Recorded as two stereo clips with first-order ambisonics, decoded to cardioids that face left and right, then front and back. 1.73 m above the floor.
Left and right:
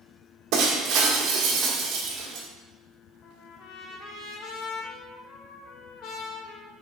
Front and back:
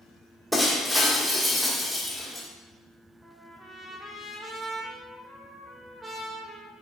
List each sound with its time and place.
0.5 s breaking glass: 95° right, 2 m
3.2 s a trumpet: 100° left, 1.8 m